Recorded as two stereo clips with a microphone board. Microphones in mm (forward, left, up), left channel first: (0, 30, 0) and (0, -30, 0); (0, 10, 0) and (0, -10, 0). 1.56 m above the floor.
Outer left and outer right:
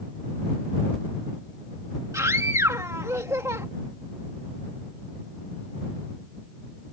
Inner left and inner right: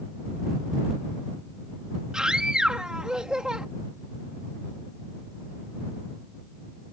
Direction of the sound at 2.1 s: 60° right (ahead or behind).